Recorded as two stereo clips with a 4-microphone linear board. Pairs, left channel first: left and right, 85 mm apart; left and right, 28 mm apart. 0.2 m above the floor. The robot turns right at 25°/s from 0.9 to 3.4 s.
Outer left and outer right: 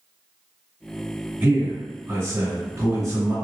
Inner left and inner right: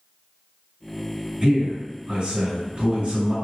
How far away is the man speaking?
About 1.6 m.